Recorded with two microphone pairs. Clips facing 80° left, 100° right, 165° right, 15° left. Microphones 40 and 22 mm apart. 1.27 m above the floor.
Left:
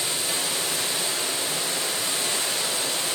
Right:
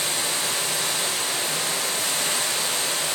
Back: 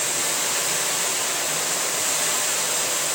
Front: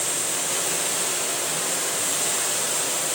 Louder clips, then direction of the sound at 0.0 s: Right 2 dB, back 3 dB; 130° right.